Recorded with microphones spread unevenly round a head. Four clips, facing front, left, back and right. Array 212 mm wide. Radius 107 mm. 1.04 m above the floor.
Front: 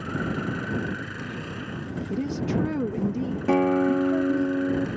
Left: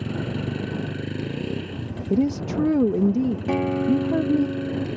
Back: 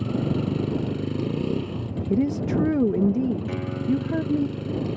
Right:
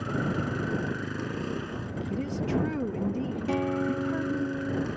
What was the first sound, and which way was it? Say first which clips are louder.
A vehicle: left 1 dB, back 4 dB; 160° left.